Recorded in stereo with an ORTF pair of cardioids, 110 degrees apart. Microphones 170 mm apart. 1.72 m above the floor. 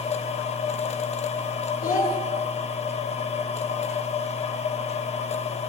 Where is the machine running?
40° left, 1.1 m.